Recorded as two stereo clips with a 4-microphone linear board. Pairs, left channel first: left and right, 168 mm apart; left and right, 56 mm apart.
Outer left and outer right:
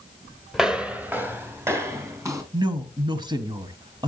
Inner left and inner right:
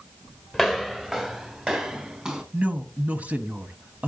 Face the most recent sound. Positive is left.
turn(degrees=-25)  # may be behind; listen again after turning